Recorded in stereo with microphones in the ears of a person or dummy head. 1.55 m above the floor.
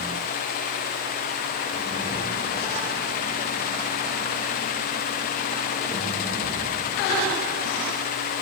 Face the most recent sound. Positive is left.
No sound to turn to.